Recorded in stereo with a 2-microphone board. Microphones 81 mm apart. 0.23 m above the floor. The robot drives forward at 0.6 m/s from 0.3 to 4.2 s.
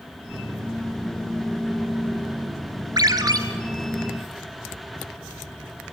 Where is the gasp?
I don't hear a gasp.